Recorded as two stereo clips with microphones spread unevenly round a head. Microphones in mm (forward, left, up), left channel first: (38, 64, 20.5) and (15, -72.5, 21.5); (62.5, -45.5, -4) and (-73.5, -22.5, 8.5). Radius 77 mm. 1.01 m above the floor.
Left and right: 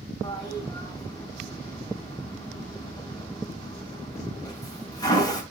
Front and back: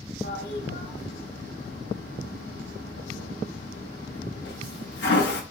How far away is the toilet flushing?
About 2.5 m.